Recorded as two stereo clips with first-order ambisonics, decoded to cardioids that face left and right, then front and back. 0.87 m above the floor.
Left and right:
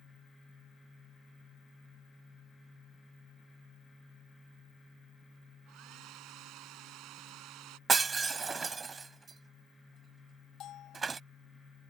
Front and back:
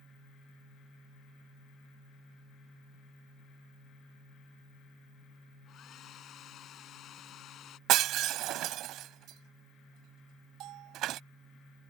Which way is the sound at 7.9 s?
160° right.